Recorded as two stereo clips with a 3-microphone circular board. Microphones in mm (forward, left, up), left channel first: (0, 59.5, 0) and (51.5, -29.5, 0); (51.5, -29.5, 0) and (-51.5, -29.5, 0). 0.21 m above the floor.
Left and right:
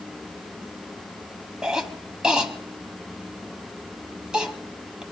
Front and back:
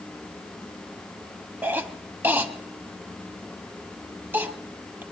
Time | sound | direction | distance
1.6 | a cough | 135° right | 1.2 m